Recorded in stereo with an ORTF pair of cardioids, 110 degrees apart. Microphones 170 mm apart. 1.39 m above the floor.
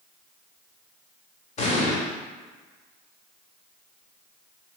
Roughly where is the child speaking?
I don't hear a child speaking.